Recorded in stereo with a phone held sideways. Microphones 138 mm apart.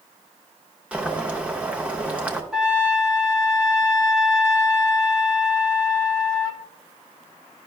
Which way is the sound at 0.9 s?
10° right (ahead or behind).